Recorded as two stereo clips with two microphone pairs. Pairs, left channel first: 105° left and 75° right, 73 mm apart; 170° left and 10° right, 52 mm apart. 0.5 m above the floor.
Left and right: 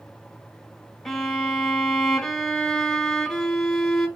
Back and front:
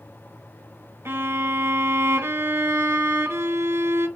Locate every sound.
1.1 s a violin: 20° left, 1.1 m